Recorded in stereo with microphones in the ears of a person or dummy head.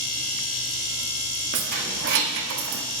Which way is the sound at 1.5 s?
40° right (ahead or behind).